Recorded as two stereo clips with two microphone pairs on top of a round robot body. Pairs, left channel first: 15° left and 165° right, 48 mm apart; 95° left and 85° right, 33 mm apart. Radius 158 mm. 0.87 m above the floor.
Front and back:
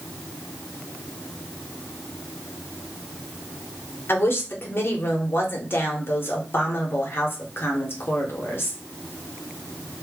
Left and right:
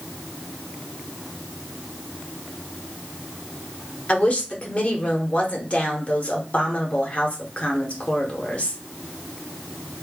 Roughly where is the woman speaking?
Ahead left.